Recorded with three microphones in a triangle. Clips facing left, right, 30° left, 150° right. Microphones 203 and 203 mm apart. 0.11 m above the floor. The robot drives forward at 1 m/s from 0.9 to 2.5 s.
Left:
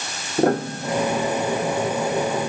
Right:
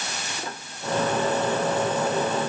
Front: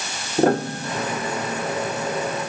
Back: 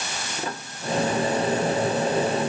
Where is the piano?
60° left; by 1.2 s 65° left.